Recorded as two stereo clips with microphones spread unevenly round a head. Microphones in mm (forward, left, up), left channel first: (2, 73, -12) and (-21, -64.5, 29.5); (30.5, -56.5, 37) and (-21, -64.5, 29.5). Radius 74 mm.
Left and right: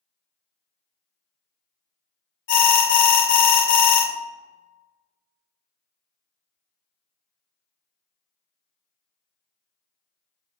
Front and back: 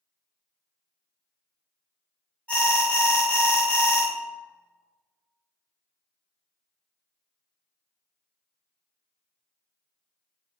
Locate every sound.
2.5 s an alarm: 85° left, 0.7 m